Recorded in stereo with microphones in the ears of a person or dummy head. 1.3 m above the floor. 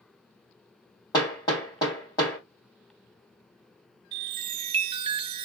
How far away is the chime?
About 0.5 m.